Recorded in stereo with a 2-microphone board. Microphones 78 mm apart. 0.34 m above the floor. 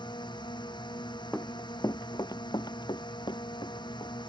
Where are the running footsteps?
15° left (ahead or behind); by 4.1 s 75° left (ahead or behind).